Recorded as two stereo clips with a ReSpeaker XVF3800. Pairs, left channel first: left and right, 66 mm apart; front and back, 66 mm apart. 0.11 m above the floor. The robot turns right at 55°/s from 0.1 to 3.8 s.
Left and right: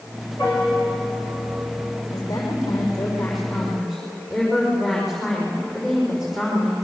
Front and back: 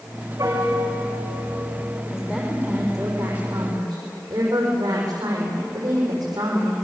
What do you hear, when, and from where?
0.4 s a piano: 135° left, 6 m; by 2.0 s 130° right, 6 m
2.1 s a woman speaking: 90° left, 6.5 m; by 6.7 s 175° right, 6.5 m